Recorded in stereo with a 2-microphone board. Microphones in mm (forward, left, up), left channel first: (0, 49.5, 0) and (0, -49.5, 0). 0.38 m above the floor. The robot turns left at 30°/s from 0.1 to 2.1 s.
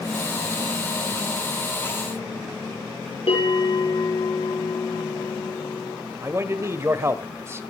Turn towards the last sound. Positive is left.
turn(degrees=-30)  # may be behind; listen again after turning